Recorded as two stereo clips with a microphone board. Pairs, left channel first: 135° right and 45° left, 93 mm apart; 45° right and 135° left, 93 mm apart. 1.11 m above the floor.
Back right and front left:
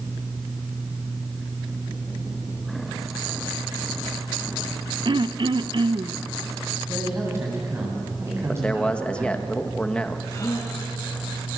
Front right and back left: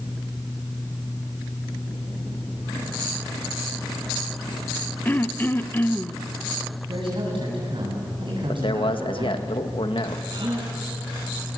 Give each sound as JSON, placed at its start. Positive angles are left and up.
{"t": 5.0, "sound": "throat clearing", "azimuth_deg": 20, "distance_m": 0.7}
{"t": 6.9, "sound": "a man speaking", "azimuth_deg": 105, "distance_m": 9.0}
{"t": 8.5, "sound": "a man speaking", "azimuth_deg": -55, "distance_m": 1.6}
{"t": 10.3, "sound": "a gasp", "azimuth_deg": 170, "distance_m": 7.5}